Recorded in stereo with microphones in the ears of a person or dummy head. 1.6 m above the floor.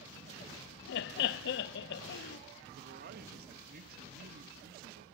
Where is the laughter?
70° left (ahead or behind), 0.7 m.